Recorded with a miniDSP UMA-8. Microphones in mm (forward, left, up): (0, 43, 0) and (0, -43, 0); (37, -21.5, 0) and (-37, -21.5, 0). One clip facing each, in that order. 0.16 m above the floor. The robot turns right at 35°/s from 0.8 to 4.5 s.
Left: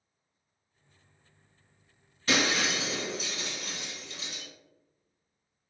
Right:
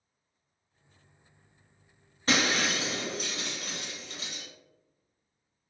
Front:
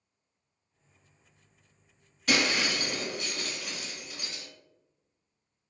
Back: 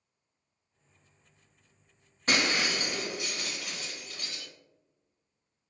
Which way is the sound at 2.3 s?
135° right.